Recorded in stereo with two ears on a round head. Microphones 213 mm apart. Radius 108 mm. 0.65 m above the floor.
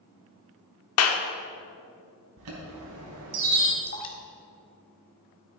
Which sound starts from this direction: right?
A chime, at 2.4 s.